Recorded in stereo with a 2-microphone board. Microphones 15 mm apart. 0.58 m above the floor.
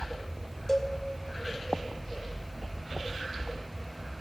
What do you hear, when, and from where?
0.7 s a cowbell: 15° left (ahead or behind), 2 m